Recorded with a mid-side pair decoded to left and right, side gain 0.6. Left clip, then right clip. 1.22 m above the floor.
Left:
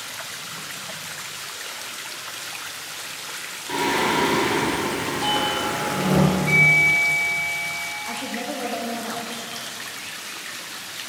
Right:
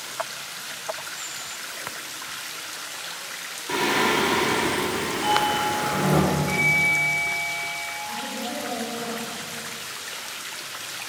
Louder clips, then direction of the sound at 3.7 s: Even; 20° right.